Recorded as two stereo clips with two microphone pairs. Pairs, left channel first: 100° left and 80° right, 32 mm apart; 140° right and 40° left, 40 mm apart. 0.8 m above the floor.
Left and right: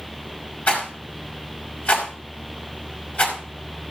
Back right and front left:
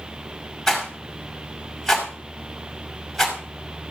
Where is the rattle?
135° left, 5 m.